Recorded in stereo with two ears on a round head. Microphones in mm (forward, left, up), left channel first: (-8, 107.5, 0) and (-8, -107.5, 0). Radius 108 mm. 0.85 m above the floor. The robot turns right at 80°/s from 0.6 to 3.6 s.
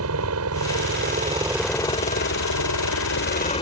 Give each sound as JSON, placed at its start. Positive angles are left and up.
{"t": 0.0, "sound": "a helicopter", "azimuth_deg": -85}